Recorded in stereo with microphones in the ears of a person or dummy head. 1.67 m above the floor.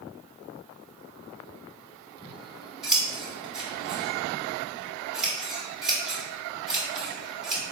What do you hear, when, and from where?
2.2 s scissors: 5° right (ahead or behind), 1.4 m